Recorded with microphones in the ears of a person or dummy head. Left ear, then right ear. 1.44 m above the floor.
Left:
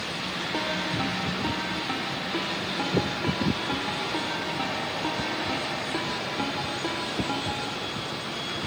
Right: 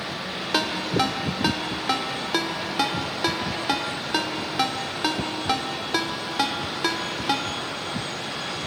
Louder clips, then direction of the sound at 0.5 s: Right 7 dB; 65° right (ahead or behind).